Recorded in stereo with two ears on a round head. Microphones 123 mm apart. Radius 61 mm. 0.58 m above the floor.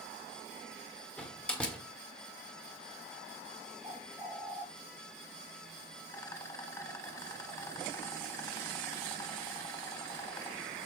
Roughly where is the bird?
Centre.